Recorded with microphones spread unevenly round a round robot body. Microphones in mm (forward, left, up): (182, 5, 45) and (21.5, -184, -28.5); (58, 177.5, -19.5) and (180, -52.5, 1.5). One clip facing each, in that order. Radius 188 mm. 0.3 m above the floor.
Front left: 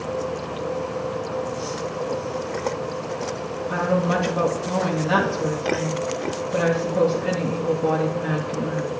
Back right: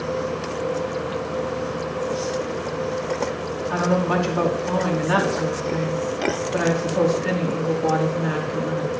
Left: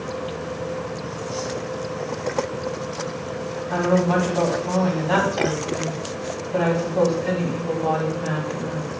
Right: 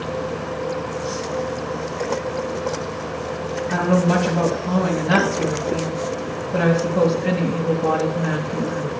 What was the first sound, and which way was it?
A woman speaking, 5° right.